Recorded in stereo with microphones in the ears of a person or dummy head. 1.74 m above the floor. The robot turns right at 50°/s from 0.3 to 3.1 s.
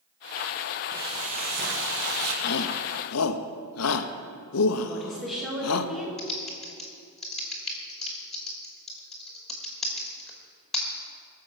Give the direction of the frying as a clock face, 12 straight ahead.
5 o'clock.